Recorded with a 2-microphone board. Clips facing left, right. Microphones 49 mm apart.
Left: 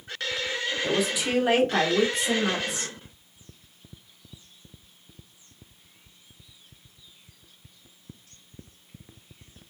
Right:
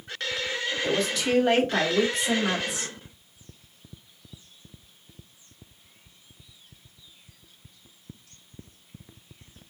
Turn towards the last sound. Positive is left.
turn(degrees=-5)  # may be behind; listen again after turning